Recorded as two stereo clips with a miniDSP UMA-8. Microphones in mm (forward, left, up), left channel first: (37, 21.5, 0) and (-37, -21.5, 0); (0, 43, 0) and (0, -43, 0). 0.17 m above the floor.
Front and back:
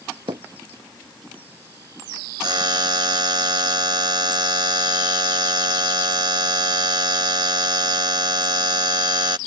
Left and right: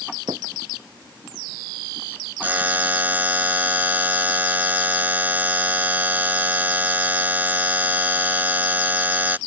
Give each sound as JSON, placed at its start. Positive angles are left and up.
{"t": 0.3, "sound": "hammering", "azimuth_deg": -125}
{"t": 2.4, "sound": "a buzzer", "azimuth_deg": -155}